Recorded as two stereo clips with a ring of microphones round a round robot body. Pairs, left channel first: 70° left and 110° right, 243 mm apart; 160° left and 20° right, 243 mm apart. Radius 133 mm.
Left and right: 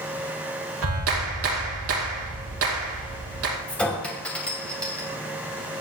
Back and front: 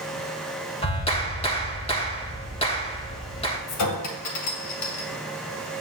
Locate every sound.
0.8 s a clap: 135° right, 3 m
3.7 s a clink: 155° left, 2.5 m